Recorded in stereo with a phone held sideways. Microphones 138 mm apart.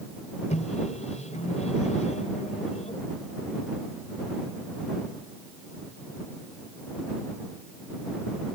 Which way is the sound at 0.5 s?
55° left (ahead or behind).